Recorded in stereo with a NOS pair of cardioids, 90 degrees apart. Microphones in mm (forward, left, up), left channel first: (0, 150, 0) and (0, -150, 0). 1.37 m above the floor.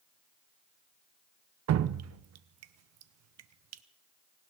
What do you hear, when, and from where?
1.7 s dripping: 60° right, 0.7 m